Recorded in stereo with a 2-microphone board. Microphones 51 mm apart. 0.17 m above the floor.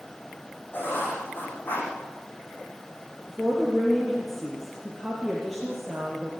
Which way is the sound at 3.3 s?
Centre (ahead or behind).